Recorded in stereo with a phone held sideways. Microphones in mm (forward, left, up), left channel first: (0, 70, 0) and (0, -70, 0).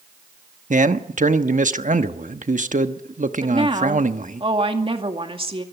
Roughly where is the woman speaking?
Right.